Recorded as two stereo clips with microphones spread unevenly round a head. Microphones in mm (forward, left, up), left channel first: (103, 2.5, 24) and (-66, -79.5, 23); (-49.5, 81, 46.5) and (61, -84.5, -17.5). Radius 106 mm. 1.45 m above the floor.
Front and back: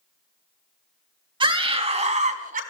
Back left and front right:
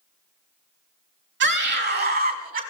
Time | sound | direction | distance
1.4 | a scream | 90° right | 3 m